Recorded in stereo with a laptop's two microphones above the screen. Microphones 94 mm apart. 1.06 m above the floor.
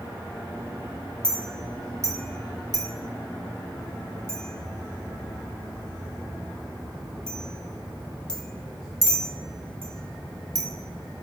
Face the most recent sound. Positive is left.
turn(degrees=5)  # may be behind; listen again after turning